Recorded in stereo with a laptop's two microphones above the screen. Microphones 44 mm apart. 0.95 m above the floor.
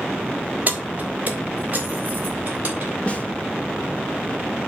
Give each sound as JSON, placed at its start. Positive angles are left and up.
{"t": 0.7, "sound": "keys jangling", "side_deg": -40, "distance_m": 1.3}
{"t": 3.1, "sound": "a snare drum", "side_deg": 25, "distance_m": 1.1}